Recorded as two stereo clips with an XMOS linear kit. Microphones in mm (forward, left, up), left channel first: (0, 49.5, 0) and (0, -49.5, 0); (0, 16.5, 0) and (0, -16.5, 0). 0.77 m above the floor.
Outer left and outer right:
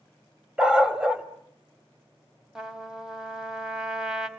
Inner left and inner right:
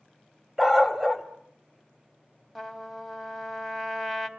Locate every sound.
0.6 s a dog barking: 10° right (ahead or behind), 1.2 m
2.5 s a trumpet: 5° right (ahead or behind), 1.3 m